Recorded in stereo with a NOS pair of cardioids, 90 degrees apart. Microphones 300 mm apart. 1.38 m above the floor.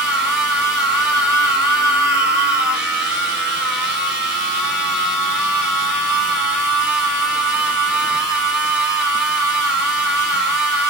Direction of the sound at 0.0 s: 5° right.